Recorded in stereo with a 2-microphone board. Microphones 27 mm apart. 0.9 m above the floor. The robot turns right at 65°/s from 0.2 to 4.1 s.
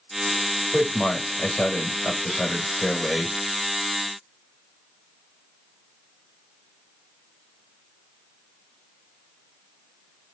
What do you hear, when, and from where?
0.7 s a man speaking: 20° left, 1.5 m; by 3.4 s 170° right, 1.5 m